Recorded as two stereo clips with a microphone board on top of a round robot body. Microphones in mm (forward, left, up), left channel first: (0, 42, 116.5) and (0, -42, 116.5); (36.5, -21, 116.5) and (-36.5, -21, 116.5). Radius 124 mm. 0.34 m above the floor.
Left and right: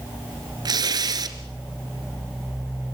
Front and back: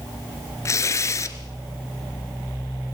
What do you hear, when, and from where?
0.7 s tearing paper: 50° right, 2 m